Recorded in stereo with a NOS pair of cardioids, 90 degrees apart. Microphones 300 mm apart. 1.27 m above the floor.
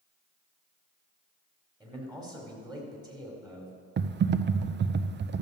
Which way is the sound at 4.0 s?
35° right.